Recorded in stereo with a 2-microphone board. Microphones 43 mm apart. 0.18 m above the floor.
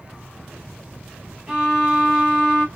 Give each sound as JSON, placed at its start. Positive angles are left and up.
{"t": 1.5, "sound": "a violin", "side_deg": -15, "distance_m": 1.2}